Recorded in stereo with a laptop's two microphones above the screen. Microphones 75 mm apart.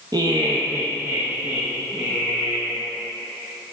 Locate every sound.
0.1 s laughter: 60° right (ahead or behind), 0.6 m; by 2.8 s 5° right (ahead or behind), 1.6 m